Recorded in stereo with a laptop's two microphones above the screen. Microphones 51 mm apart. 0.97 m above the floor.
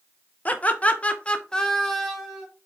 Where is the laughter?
30° left (ahead or behind), 0.7 m; by 2.5 s centre (ahead or behind), 0.9 m.